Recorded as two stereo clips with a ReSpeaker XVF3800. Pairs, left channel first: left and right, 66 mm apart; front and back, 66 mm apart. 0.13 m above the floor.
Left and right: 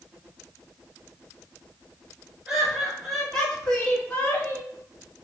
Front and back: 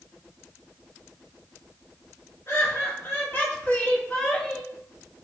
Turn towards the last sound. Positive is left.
turn(degrees=70)